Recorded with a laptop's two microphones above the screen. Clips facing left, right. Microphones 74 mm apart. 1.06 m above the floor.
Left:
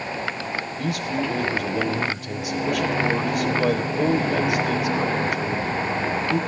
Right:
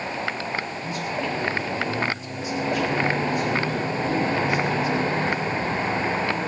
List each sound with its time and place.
0.8 s a man speaking: 75° left (ahead or behind), 3.5 m